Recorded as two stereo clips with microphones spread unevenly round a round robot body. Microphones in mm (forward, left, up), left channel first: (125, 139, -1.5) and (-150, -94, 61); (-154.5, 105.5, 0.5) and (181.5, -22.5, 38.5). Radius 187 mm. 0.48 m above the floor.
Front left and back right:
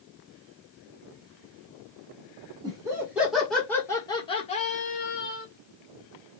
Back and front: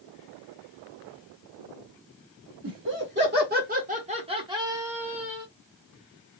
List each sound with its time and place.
2.6 s laughter: 55° right, 1.4 m; by 5.5 s 75° left, 1.6 m